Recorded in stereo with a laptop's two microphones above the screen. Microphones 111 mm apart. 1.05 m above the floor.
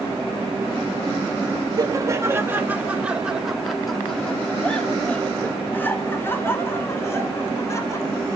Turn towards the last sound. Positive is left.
turn(degrees=25)  # may be behind; listen again after turning